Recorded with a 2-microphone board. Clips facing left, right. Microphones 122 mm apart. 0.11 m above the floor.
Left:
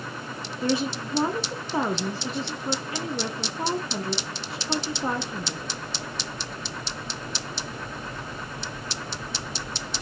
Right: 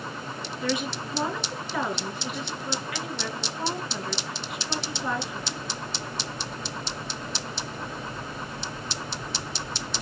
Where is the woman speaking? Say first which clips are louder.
Left 4 dB; 30° left (ahead or behind), 1.6 m.